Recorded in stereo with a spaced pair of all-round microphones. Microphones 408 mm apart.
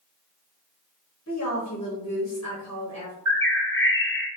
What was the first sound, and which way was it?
A woman speaking, 35° left (ahead or behind).